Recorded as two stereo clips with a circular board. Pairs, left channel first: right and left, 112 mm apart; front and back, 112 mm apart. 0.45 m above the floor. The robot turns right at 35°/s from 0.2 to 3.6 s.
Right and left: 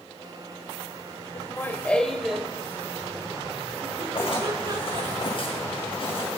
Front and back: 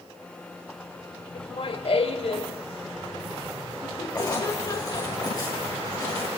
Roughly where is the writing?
Ahead right.